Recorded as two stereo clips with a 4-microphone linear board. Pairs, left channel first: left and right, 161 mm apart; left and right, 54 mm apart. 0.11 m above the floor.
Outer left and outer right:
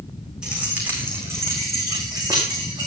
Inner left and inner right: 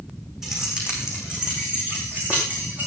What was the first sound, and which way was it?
Keys jangling, 5° right (ahead or behind).